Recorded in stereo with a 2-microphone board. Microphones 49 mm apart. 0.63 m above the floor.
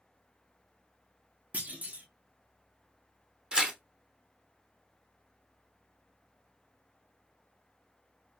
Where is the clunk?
30° right (ahead or behind), 0.9 m.